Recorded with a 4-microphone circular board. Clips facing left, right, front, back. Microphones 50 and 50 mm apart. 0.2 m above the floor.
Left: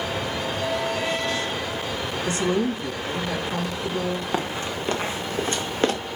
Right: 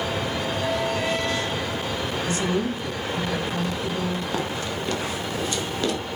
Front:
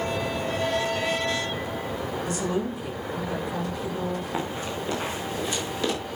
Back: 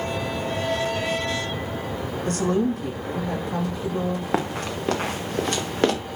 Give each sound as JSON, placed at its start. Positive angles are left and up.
{"t": 2.2, "sound": "a woman speaking", "azimuth_deg": 140, "distance_m": 7.5}
{"t": 4.3, "sound": "running footsteps", "azimuth_deg": 155, "distance_m": 3.0}